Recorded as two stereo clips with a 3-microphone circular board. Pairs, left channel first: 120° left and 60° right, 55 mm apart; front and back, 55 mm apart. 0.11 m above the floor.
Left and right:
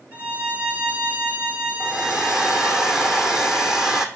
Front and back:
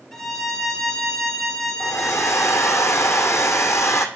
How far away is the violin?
About 1.3 m.